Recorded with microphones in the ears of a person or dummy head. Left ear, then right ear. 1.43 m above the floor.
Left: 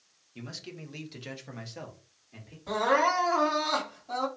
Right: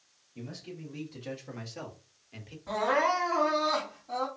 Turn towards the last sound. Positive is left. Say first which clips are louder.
# left 2 dB
turn(degrees=25)  # may be behind; listen again after turning